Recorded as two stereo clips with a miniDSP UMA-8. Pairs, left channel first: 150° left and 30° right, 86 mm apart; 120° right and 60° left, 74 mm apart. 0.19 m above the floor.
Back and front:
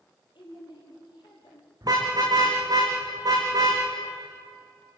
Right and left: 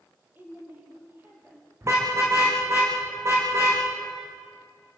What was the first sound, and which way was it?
A woman speaking, 120° left.